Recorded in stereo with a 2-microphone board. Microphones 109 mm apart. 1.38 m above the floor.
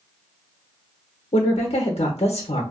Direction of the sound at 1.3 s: 75° left (ahead or behind).